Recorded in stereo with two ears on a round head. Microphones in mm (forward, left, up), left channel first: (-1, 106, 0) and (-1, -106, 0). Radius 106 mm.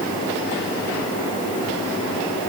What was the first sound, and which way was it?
Only background noise.